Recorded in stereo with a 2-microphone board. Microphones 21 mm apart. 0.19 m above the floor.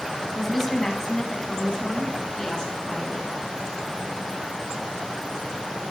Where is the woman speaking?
15° left (ahead or behind), 1.0 m; by 3.3 s 40° left (ahead or behind), 2 m.